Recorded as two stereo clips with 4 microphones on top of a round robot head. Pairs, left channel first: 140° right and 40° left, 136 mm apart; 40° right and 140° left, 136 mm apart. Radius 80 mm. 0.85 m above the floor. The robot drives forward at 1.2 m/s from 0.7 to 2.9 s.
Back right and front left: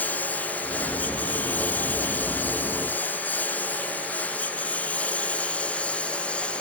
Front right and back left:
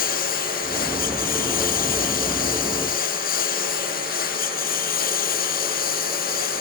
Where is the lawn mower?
60° right; by 6.6 s 55° right.